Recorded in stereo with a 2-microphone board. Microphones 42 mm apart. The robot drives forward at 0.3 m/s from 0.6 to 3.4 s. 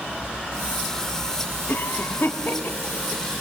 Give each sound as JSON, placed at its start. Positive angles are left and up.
{"t": 1.7, "sound": "a cough", "side_deg": 70, "distance_m": 1.6}